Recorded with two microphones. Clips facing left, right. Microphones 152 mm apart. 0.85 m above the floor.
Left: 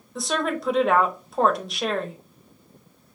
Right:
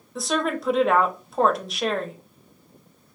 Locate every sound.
0.1 s a woman speaking: centre (ahead or behind), 0.6 m